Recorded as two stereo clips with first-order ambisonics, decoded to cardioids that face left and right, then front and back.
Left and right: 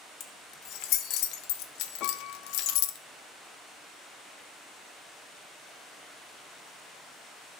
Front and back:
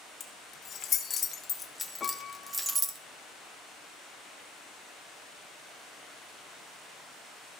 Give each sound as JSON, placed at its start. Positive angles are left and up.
{"t": 0.2, "sound": "keys jangling", "azimuth_deg": 55, "distance_m": 1.8}
{"t": 2.0, "sound": "a piano", "azimuth_deg": 65, "distance_m": 0.7}